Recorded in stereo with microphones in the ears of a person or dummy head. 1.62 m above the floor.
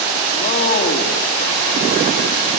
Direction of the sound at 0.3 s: 45° left (ahead or behind).